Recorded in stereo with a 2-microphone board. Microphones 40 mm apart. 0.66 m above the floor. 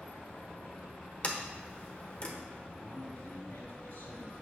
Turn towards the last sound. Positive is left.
turn(degrees=80)